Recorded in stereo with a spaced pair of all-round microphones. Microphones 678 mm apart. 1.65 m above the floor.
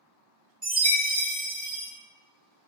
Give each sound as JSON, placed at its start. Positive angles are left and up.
{"t": 0.6, "sound": "a chime", "side_deg": -70, "distance_m": 1.3}